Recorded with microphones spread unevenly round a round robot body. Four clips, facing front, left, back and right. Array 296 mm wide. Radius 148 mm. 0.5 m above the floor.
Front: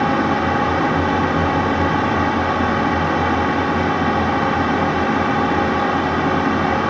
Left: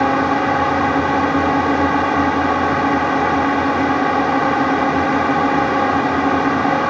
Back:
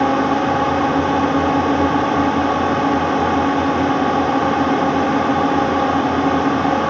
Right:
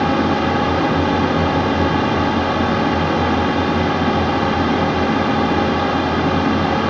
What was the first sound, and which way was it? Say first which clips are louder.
A drone: left 1 dB, back 2 dB; 145° left.